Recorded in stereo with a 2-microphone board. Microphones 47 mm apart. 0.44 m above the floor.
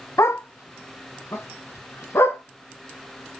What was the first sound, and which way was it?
A dog barking, 85° left.